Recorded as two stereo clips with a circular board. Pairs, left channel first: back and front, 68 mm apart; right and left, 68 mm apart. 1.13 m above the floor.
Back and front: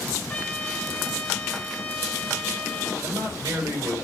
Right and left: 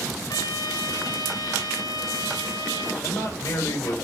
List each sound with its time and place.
0.3 s a trumpet: 105° right, 5 m
3.0 s a man speaking: 45° right, 4.5 m